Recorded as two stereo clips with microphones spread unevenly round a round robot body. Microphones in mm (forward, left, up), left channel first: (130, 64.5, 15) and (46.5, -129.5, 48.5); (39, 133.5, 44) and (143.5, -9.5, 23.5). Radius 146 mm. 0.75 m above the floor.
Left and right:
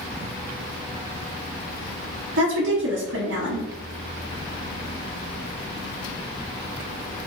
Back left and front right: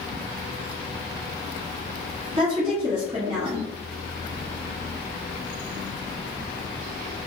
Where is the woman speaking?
100° right, 1.2 m.